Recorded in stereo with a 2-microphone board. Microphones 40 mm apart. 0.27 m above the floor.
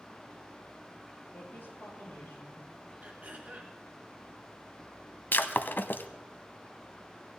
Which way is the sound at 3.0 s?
40° right (ahead or behind).